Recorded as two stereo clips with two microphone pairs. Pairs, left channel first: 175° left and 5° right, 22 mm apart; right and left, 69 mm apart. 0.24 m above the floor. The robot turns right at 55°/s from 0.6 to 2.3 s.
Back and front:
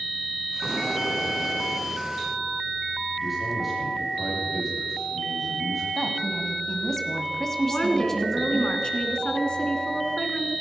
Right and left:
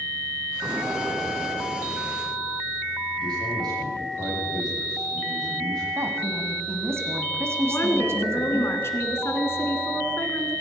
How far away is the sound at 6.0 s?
About 1.9 m.